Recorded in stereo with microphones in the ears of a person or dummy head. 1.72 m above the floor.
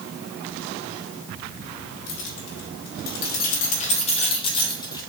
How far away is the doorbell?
I don't hear a doorbell.